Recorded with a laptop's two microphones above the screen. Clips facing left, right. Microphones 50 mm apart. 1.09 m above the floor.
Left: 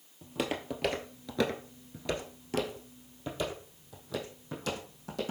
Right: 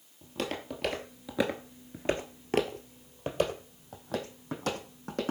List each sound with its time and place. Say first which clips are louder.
0.2 s footsteps: left 1 dB; 15° left (ahead or behind), 1.7 m; by 5.3 s 45° right (ahead or behind), 4 m